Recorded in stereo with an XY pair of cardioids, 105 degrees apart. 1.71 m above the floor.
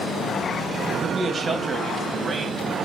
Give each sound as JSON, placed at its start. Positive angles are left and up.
{"t": 1.0, "sound": "a man speaking", "azimuth_deg": -35, "distance_m": 1.8}